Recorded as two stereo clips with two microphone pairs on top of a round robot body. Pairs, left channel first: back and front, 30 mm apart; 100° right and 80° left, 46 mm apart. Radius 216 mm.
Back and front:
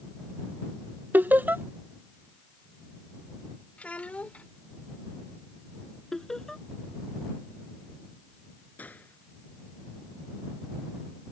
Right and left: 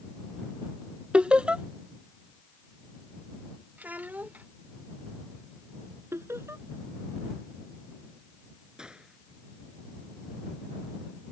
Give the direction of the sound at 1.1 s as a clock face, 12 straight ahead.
12 o'clock.